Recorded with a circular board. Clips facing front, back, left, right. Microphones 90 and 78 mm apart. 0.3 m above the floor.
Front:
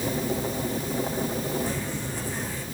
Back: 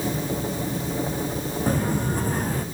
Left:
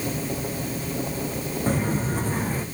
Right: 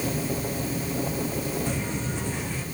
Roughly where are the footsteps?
Behind left.